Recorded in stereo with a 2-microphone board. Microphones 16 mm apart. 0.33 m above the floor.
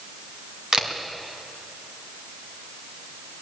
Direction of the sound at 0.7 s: 50° right (ahead or behind).